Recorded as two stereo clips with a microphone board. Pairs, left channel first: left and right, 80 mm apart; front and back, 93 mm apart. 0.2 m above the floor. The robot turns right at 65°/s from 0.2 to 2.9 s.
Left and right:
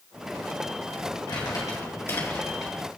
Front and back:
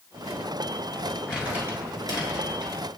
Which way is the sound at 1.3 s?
95° left.